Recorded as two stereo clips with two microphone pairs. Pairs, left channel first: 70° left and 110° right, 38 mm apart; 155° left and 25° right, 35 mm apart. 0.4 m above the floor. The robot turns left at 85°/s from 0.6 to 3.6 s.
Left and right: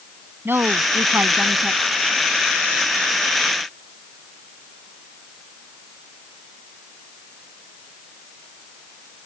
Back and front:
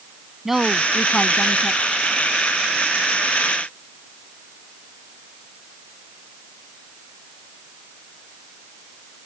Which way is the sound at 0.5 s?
100° right.